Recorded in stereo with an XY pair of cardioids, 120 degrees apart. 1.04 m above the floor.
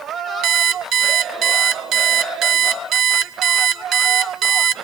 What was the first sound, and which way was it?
An alarm clock, 60° right.